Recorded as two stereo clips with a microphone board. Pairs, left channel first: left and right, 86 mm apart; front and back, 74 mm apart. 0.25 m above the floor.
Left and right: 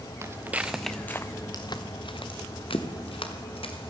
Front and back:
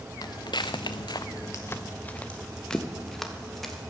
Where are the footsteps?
30° right, 1.2 m; by 3.9 s 90° left, 3.5 m.